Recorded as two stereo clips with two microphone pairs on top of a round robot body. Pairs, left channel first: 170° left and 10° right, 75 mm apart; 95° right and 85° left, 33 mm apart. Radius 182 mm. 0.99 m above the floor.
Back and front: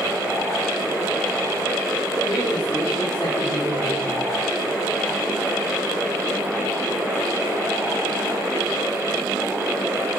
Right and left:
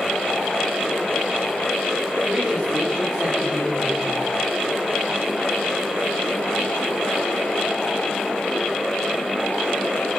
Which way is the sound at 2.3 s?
175° right.